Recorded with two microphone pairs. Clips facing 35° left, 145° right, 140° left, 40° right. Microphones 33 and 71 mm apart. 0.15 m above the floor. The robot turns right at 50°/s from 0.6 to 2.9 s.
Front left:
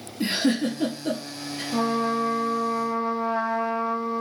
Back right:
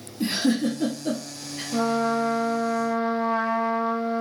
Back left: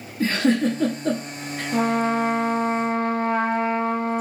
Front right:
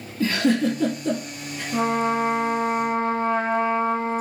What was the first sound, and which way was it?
A giggle, 90° left.